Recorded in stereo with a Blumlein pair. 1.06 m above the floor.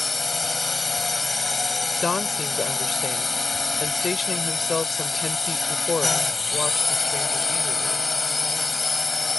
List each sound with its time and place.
0.0 s a drone: 10° left
2.0 s a woman speaking: 15° left